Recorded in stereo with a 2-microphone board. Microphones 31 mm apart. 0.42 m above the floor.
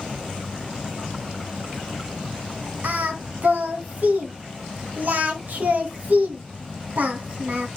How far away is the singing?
About 2 m.